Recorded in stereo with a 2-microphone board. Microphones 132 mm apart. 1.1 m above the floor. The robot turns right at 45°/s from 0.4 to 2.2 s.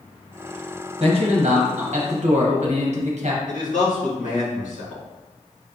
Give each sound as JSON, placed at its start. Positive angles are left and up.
{"t": 1.0, "sound": "a man speaking", "azimuth_deg": -130, "distance_m": 0.7}
{"t": 3.5, "sound": "a man speaking", "side_deg": 75, "distance_m": 1.5}